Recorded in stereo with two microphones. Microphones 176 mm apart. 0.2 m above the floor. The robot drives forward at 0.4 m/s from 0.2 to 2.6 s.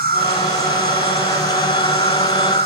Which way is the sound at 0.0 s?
60° right (ahead or behind).